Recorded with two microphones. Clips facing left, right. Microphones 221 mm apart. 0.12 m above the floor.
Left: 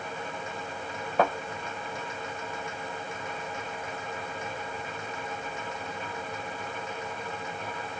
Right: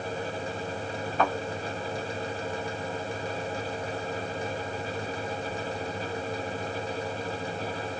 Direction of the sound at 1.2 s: 70° left (ahead or behind).